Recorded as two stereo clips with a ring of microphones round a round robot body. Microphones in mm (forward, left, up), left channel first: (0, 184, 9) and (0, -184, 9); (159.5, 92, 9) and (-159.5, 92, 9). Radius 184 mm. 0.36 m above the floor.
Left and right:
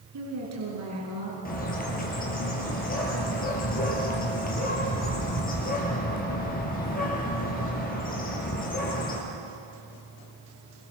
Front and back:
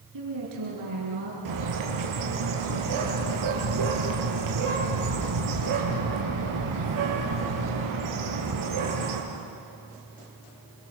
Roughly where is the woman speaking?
Behind right.